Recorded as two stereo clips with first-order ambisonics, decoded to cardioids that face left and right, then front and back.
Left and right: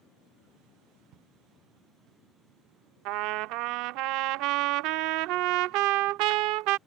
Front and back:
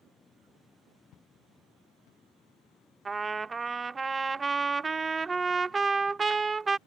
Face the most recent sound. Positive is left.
turn(degrees=-105)